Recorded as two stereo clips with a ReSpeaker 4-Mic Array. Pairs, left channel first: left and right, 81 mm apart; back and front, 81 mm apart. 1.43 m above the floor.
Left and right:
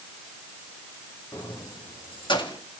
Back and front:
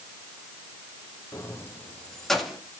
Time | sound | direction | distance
1.3 | keys jangling | 135° left | 1.5 m